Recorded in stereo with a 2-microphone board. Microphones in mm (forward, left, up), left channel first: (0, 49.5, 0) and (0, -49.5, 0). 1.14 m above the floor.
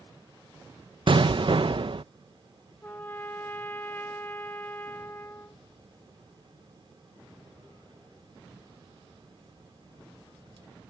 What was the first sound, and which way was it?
An explosion, 55° right (ahead or behind).